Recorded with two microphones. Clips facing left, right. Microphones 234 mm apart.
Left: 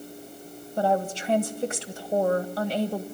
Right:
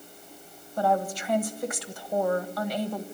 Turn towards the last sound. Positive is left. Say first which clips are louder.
# left 1 dB
turn(degrees=25)  # may be behind; listen again after turning